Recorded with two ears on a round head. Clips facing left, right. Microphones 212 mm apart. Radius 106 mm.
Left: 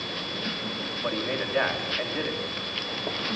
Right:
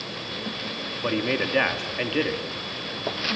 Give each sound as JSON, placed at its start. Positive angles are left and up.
{"t": 1.0, "sound": "a man speaking", "side_deg": -45, "distance_m": 2.5}